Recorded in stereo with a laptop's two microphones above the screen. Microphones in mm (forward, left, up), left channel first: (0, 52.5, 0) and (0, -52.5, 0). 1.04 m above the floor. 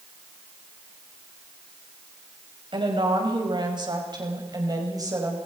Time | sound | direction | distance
2.7 | a woman speaking | 50° right (ahead or behind) | 5.5 m